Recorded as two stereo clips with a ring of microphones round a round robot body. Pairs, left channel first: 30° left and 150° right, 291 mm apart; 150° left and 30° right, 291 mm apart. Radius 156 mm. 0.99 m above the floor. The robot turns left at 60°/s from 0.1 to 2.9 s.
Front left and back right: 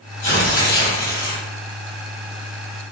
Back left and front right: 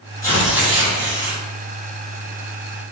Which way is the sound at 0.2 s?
75° left.